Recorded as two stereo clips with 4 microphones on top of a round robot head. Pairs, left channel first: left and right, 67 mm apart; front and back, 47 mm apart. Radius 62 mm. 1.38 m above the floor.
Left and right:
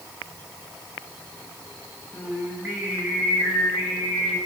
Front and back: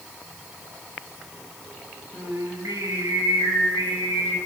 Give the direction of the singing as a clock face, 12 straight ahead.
5 o'clock.